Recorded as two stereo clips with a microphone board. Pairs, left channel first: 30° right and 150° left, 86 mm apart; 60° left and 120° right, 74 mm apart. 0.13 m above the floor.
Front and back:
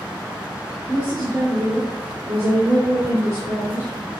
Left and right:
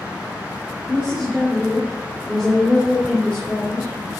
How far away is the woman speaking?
About 3.5 m.